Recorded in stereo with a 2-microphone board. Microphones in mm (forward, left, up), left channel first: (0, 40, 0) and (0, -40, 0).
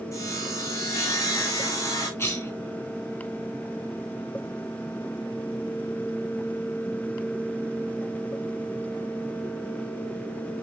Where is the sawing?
40° left (ahead or behind), 5 m.